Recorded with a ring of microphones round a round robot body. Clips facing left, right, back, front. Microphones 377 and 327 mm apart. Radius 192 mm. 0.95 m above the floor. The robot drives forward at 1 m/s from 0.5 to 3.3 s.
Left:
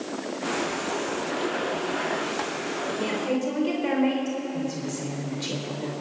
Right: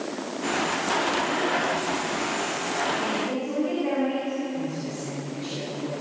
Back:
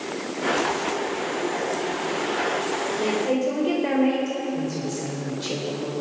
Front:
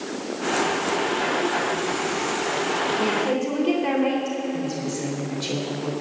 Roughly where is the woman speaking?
Ahead left.